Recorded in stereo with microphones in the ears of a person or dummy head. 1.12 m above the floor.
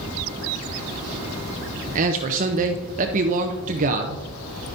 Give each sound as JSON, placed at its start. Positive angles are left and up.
{"t": 1.9, "sound": "a man speaking", "side_deg": -40, "distance_m": 0.7}